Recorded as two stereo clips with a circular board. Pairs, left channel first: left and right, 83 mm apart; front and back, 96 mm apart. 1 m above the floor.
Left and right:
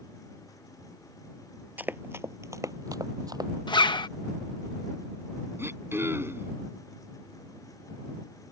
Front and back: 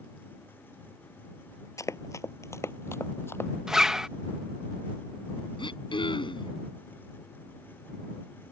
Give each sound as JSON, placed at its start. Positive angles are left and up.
{"t": 1.8, "sound": "running footsteps", "azimuth_deg": -35}
{"t": 3.7, "sound": "a zipper", "azimuth_deg": 95}
{"t": 5.6, "sound": "throat clearing", "azimuth_deg": -30}